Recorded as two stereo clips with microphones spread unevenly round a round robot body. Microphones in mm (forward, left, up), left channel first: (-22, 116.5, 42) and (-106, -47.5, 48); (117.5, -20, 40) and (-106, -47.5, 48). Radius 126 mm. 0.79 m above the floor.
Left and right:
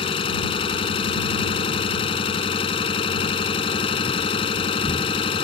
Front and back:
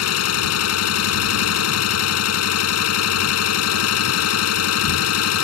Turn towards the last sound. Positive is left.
turn(degrees=-5)